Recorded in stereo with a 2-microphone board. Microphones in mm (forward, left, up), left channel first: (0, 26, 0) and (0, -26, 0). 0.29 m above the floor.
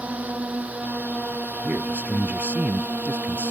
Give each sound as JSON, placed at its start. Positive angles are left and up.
{"t": 0.0, "sound": "a drone", "side_deg": -30}
{"t": 1.6, "sound": "a man speaking", "side_deg": -35}